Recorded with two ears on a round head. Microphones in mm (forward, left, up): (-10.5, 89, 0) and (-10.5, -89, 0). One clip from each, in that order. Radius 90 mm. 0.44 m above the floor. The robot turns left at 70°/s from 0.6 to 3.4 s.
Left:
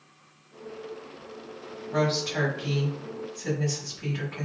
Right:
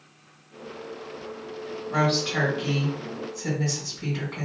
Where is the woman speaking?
35° right, 1.8 m; by 4.5 s 140° right, 1.8 m.